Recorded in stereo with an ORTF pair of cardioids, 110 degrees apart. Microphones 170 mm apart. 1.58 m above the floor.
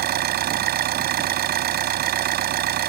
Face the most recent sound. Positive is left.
turn(degrees=-70)